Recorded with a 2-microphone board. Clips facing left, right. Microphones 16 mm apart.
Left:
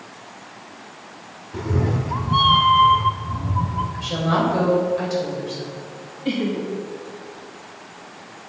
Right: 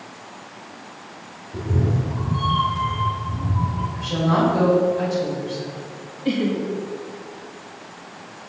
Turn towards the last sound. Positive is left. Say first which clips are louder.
# right 1 dB
turn(degrees=0)  # may be behind; listen again after turning